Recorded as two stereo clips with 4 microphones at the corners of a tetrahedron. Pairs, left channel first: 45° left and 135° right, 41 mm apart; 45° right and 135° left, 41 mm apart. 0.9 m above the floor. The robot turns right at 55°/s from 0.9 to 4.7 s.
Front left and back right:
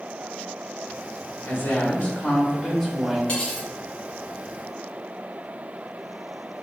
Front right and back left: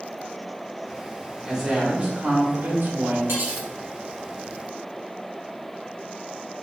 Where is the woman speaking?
40° left, 1.8 m; by 3.2 s 135° left, 1.8 m.